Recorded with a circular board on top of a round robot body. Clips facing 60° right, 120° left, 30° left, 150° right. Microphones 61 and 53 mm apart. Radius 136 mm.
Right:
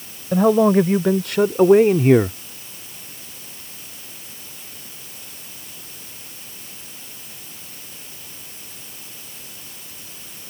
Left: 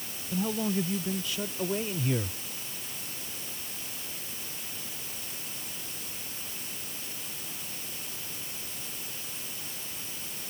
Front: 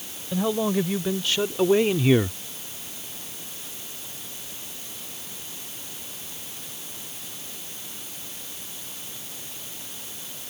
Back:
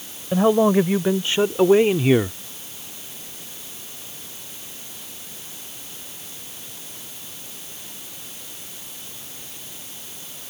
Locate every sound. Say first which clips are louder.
0.3 s a man speaking: right 16 dB, back 8 dB; 95° right; by 2.4 s 70° right